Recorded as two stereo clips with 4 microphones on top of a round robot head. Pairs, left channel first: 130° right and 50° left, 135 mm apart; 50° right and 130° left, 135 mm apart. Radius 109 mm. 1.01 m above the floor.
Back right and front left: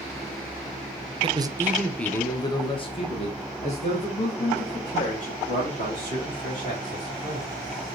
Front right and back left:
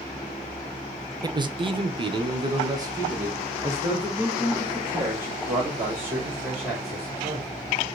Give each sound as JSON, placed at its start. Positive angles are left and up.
{"t": 1.2, "sound": "a man speaking", "azimuth_deg": 80, "distance_m": 0.6}